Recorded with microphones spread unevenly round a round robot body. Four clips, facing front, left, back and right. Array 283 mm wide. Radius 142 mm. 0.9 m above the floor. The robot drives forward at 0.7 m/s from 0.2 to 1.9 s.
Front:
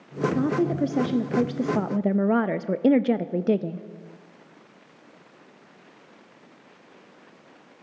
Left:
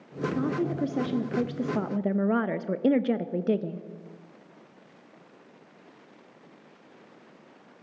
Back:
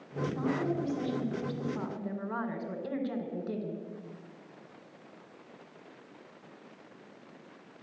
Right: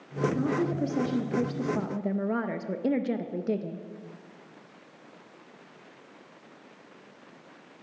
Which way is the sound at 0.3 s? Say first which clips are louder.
Left 2 dB, front 8 dB; 5° left.